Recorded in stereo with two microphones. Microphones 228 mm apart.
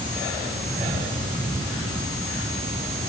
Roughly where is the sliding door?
I don't hear a sliding door.